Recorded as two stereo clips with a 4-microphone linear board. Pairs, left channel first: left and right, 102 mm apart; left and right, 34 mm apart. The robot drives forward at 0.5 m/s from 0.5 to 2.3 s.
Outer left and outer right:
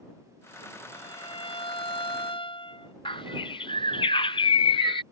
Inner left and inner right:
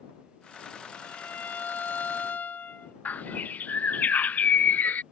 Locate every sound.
0.9 s a violin: 55° left (ahead or behind)
3.0 s a bird: 55° left (ahead or behind)